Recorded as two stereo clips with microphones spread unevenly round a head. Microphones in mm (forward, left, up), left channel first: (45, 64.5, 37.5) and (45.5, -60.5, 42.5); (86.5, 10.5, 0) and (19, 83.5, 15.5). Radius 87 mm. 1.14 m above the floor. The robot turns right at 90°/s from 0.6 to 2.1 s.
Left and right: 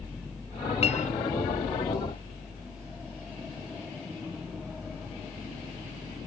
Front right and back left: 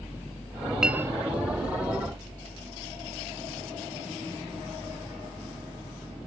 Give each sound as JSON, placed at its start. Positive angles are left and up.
{"t": 0.8, "sound": "a clink", "azimuth_deg": 50}